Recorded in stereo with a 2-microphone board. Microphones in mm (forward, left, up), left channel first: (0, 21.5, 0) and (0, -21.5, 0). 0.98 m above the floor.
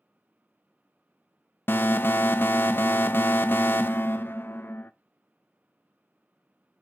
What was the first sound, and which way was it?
An alarm, 60° left (ahead or behind).